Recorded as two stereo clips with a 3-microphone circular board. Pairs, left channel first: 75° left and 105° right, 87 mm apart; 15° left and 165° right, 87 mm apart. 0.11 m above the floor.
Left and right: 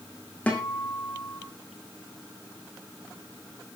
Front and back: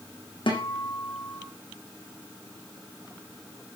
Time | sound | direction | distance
0.5 | a guitar | straight ahead | 6 m